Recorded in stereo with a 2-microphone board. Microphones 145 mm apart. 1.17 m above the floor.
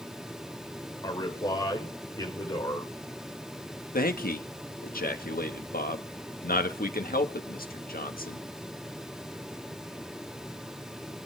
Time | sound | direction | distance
1.0 | a man speaking | 25° left (ahead or behind) | 4 m
3.9 | a man speaking | 75° left (ahead or behind) | 1.6 m